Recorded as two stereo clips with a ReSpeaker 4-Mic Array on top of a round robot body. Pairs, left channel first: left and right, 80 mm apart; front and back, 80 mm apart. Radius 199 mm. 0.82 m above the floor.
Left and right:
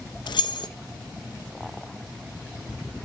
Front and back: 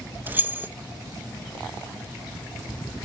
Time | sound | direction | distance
0.3 | keys jangling | 115° left | 0.6 m